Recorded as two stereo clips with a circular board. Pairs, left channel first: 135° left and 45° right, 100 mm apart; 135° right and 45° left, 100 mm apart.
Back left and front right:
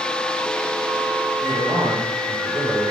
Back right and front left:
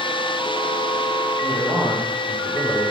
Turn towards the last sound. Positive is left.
turn(degrees=-80)